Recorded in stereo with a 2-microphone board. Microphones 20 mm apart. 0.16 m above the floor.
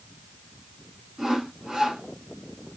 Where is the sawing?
35° right (ahead or behind), 1.6 m.